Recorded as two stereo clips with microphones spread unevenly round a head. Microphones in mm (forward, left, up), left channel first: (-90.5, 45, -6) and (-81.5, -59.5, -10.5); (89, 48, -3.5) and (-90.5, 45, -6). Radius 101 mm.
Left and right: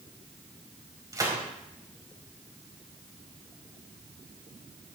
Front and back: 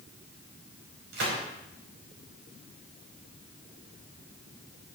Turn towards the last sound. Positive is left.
turn(degrees=-140)